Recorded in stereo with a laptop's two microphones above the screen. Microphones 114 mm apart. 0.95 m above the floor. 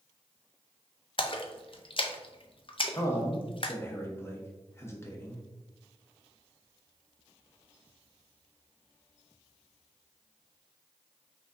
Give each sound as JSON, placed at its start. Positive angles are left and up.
{"t": 1.2, "sound": "a splash", "side_deg": 50, "distance_m": 0.5}
{"t": 2.9, "sound": "a man speaking", "side_deg": 25, "distance_m": 0.8}